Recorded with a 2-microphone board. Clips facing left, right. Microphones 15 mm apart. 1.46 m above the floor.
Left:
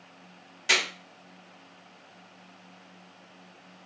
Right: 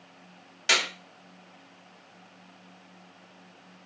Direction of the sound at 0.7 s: 10° right (ahead or behind).